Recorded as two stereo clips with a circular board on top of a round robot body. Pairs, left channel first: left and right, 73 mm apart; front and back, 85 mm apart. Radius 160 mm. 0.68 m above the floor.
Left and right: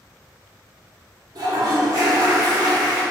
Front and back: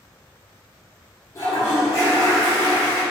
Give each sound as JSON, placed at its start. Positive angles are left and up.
{"t": 1.4, "sound": "a toilet flushing", "azimuth_deg": -55, "distance_m": 0.7}